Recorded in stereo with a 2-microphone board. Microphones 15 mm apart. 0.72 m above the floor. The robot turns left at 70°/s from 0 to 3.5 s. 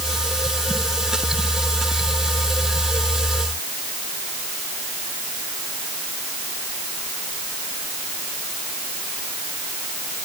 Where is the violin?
I don't hear a violin.